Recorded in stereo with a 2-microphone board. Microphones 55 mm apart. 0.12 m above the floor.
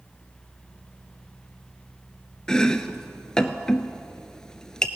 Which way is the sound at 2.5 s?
15° left (ahead or behind).